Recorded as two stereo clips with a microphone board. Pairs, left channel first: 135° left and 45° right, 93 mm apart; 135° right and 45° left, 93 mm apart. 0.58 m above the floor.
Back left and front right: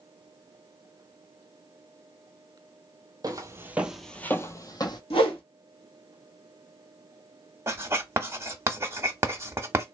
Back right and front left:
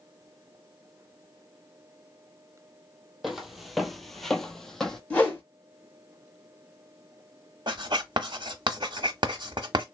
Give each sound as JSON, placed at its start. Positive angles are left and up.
{"t": 3.2, "sound": "footsteps", "azimuth_deg": -40, "distance_m": 0.7}
{"t": 5.1, "sound": "a whoosh", "azimuth_deg": 150, "distance_m": 1.2}
{"t": 7.7, "sound": "writing", "azimuth_deg": 15, "distance_m": 0.9}